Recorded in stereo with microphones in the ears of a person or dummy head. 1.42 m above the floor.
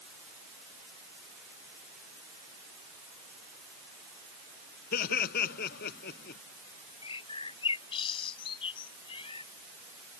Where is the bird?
35° left (ahead or behind).